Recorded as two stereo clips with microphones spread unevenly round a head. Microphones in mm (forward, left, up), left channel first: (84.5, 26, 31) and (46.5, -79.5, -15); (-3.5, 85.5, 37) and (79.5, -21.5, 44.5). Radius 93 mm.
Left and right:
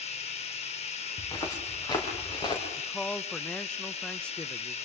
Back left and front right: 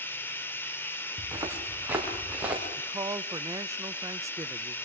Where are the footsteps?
15° left, 4.5 m; by 2.6 s 30° left, 5 m.